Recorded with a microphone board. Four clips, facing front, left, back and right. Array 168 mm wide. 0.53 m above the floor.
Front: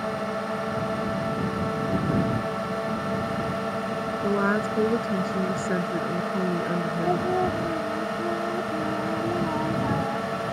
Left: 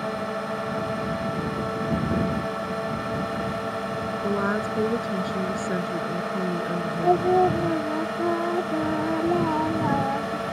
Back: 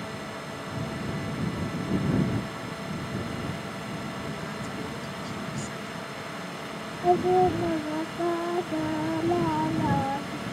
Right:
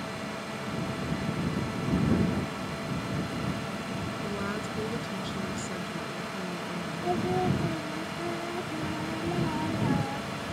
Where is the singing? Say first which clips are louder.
Left 9 dB, back 5 dB; 115° left.